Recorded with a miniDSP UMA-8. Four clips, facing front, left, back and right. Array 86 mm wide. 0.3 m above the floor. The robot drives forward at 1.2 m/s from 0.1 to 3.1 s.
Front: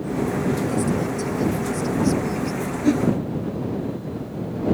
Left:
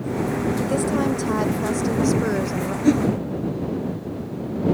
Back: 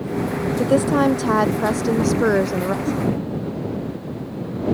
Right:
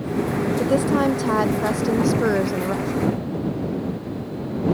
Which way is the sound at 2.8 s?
55° left.